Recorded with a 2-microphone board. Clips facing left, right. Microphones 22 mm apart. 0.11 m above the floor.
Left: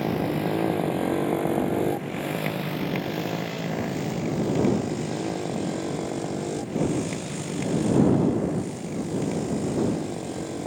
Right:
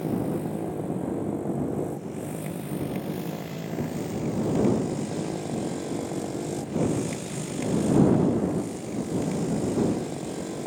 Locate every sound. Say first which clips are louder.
0.0 s a motorcycle: left 3 dB; 50° left (ahead or behind); by 10.7 s 5° left (ahead or behind)